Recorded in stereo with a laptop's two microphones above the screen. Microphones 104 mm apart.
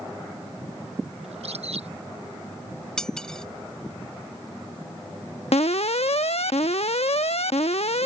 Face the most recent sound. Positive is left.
turn(degrees=80)